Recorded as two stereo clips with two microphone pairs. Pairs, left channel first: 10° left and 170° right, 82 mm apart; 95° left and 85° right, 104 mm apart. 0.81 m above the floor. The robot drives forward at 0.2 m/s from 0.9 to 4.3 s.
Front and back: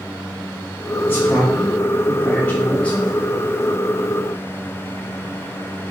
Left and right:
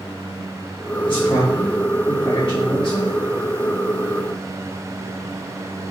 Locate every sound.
1.1 s a man speaking: 70° left, 1.7 m; by 3.1 s 85° left, 1.6 m